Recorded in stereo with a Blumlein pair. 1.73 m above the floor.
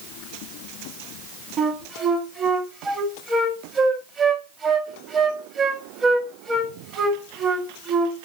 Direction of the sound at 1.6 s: 20° right.